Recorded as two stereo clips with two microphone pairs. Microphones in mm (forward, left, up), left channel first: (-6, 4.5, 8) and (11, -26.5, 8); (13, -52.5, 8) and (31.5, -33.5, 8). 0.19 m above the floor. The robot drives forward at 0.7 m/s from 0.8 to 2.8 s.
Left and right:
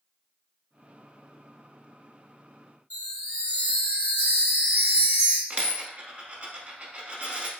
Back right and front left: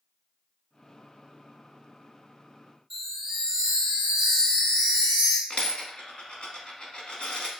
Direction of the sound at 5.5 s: 105° right.